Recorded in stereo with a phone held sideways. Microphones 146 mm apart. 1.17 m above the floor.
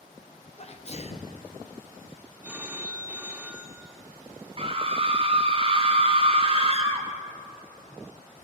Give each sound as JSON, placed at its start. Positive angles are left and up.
{"t": 0.6, "sound": "a sneeze", "side_deg": 45, "distance_m": 0.6}
{"t": 2.4, "sound": "a phone ringing", "side_deg": -10, "distance_m": 0.6}
{"t": 4.6, "sound": "a scream", "side_deg": -40, "distance_m": 0.7}